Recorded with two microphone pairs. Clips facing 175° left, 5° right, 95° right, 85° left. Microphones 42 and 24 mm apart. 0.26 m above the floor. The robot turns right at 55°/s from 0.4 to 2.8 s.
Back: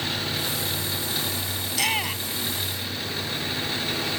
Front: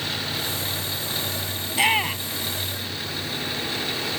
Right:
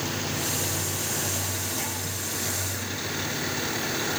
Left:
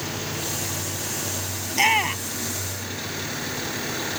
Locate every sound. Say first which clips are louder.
1.7 s a shout: front 5 dB, left 11 dB; 50° left; by 2.5 s 95° left